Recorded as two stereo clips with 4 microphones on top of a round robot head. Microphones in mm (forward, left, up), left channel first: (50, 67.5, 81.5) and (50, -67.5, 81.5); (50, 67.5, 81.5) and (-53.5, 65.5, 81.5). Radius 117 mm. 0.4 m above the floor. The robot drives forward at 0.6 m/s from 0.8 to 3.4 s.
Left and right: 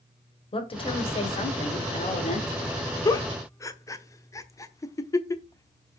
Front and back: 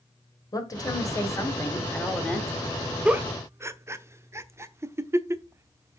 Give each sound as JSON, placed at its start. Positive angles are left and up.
{"t": 0.5, "sound": "a woman speaking", "azimuth_deg": 50, "distance_m": 2.0}
{"t": 3.0, "sound": "a giggle", "azimuth_deg": 115, "distance_m": 0.8}